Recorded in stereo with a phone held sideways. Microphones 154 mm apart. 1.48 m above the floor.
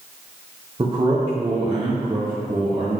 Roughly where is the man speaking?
Right.